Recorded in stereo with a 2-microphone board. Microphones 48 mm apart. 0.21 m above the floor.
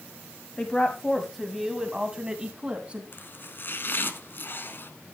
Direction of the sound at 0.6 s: 20° left (ahead or behind).